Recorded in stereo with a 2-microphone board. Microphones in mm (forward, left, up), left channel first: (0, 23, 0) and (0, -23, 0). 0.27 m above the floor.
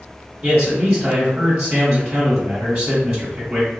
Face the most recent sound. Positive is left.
turn(degrees=-15)  # may be behind; listen again after turning